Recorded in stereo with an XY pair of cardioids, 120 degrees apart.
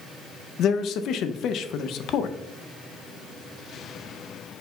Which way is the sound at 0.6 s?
65° left.